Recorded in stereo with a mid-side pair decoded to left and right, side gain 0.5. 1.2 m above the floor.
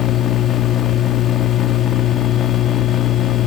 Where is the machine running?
55° left, 2 m.